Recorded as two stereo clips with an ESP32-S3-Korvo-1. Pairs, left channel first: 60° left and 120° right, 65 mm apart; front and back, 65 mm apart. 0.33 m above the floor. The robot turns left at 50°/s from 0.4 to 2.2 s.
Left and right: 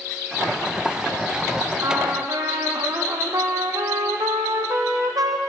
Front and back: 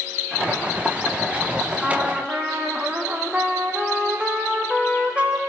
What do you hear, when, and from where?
1.8 s a trumpet: 85° right, 2.5 m; by 5.4 s 105° right, 2.5 m